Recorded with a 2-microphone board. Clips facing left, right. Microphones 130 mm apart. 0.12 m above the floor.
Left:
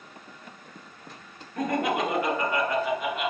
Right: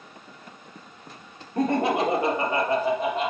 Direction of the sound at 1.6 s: 30° right (ahead or behind).